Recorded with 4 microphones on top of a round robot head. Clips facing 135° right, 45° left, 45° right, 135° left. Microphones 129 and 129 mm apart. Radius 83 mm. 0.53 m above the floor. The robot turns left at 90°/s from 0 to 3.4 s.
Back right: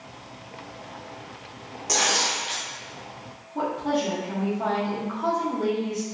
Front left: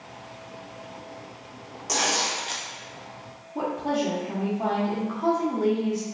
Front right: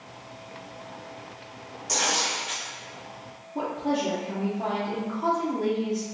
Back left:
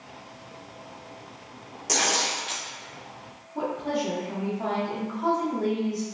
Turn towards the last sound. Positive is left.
turn(degrees=-25)